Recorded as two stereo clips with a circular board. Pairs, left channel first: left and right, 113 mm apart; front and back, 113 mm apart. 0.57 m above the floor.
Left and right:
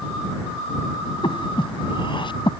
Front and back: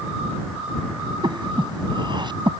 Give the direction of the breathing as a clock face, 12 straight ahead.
8 o'clock.